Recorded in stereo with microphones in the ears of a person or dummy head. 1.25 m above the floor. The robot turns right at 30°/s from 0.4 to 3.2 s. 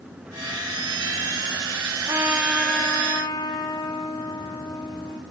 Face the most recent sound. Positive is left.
turn(degrees=20)